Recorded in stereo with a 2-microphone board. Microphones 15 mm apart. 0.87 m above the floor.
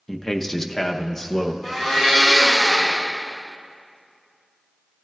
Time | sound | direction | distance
0.1 | a man speaking | 10° left (ahead or behind) | 0.7 m
1.6 | a blender | 15° right (ahead or behind) | 5 m